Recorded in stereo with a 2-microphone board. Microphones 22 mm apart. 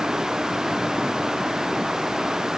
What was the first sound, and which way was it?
Only background noise.